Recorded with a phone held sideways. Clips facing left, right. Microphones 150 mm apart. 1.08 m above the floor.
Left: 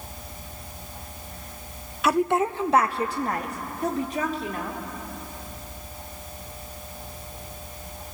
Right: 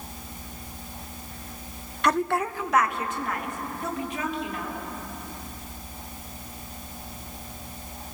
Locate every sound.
2.0 s a woman speaking: 5° left (ahead or behind), 0.6 m; by 4.8 s 40° left (ahead or behind), 3.5 m